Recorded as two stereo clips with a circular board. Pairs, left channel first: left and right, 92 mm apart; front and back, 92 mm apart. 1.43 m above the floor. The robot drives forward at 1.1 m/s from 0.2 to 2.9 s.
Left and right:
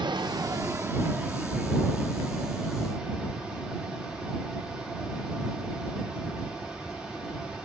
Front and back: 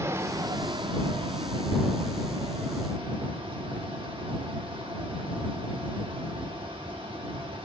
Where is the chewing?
I don't hear chewing.